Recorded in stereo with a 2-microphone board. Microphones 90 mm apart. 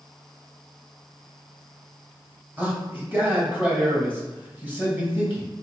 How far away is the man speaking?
About 1.2 m.